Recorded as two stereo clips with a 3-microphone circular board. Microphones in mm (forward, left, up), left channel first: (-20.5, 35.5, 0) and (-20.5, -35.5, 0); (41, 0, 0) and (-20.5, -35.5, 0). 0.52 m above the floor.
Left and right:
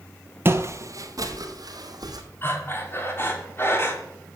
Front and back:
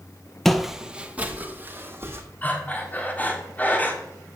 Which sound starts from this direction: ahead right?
Footsteps, at 0.5 s.